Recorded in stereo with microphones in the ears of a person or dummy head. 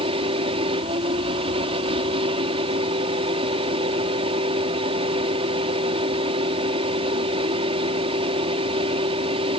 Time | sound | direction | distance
0.0 | a fan | 35° right (ahead or behind) | ?